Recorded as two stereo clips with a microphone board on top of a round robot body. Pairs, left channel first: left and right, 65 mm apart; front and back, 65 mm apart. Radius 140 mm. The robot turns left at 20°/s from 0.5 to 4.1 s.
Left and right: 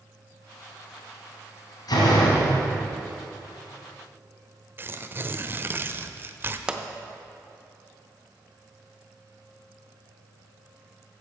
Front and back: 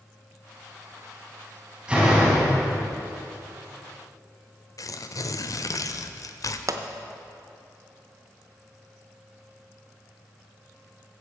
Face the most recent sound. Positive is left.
turn(degrees=-165)